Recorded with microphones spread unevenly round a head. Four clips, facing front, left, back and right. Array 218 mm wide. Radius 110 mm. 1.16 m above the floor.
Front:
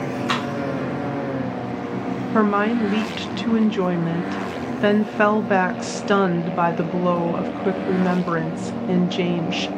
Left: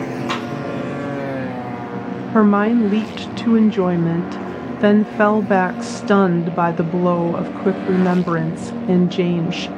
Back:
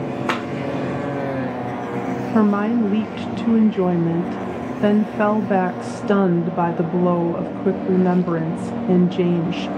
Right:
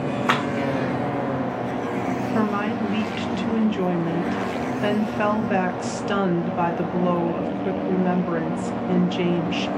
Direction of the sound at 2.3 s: 95° left.